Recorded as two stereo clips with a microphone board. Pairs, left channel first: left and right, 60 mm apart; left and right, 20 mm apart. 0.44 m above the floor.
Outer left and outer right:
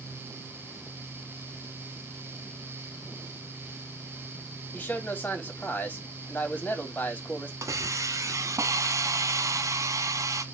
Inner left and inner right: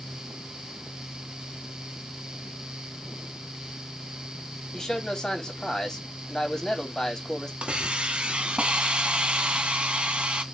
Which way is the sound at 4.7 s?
30° left (ahead or behind).